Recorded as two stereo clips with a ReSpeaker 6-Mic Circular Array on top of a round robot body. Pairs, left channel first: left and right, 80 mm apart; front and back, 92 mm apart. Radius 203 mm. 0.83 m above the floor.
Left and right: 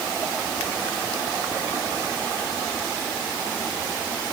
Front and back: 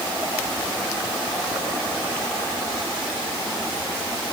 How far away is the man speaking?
No man speaking in this recording.